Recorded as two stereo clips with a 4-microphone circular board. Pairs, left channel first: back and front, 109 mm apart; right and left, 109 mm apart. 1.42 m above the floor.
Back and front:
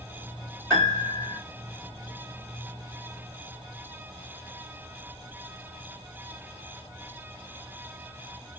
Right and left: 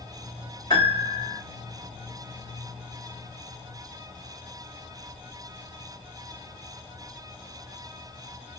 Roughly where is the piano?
Behind right.